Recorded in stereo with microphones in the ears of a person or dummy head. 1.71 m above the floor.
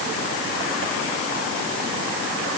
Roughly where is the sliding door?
I don't hear a sliding door.